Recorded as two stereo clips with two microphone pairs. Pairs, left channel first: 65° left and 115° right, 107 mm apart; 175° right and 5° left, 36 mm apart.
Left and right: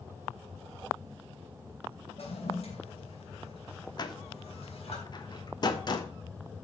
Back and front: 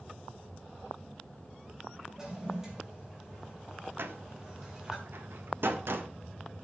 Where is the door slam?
15° left, 1.3 m.